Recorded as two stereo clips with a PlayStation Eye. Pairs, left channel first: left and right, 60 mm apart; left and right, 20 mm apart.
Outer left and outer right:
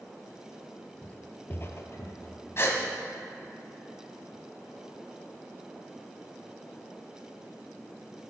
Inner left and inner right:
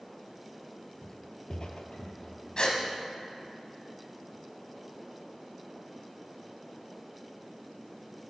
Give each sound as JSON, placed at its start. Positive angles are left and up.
{"t": 1.0, "sound": "footsteps", "side_deg": 20, "distance_m": 1.0}
{"t": 2.6, "sound": "a gasp", "side_deg": 45, "distance_m": 2.0}